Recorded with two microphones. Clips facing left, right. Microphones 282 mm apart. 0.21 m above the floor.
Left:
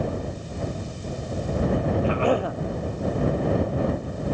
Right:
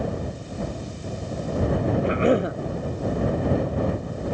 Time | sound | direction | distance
2.0 | a cough | 20° right (ahead or behind) | ?